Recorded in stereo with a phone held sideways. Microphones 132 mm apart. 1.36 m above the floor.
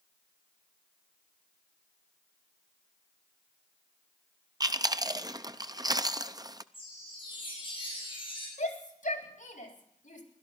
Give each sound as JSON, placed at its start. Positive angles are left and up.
{"t": 4.6, "sound": "chewing", "side_deg": -30, "distance_m": 0.6}
{"t": 6.7, "sound": "a chime", "side_deg": 40, "distance_m": 9.5}
{"t": 8.6, "sound": "a shout", "side_deg": 75, "distance_m": 3.5}